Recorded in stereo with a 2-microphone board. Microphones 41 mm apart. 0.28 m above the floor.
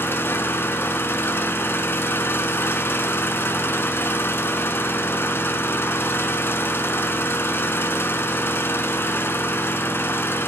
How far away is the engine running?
About 1.1 m.